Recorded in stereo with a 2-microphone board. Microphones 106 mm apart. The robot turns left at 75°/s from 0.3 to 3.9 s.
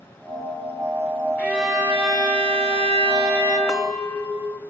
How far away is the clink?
About 0.7 m.